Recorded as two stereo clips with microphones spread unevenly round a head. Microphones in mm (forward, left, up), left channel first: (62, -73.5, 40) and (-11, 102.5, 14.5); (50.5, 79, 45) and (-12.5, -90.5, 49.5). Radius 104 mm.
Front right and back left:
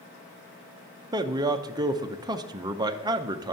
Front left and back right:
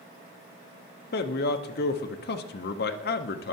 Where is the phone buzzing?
No phone buzzing in this recording.